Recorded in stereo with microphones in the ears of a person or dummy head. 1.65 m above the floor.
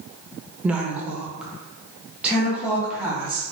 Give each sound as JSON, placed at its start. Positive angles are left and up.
{"t": 0.6, "sound": "a woman speaking", "side_deg": -10, "distance_m": 0.6}